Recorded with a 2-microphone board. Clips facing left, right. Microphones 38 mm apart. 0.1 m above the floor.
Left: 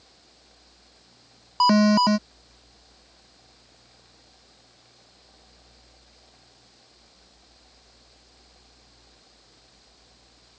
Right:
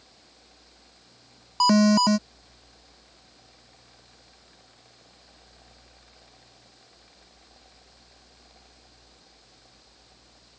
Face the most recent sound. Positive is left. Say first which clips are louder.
# left 1 dB
turn(degrees=10)  # may be behind; listen again after turning